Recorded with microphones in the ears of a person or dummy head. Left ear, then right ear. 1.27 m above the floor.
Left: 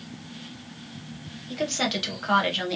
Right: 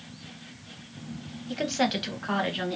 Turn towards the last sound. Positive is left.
turn(degrees=15)  # may be behind; listen again after turning